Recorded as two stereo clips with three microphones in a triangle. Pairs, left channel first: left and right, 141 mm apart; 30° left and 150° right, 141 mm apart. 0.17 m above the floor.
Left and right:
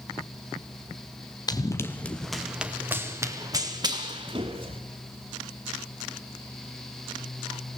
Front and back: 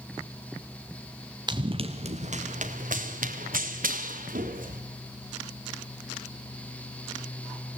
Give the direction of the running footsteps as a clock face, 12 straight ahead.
7 o'clock.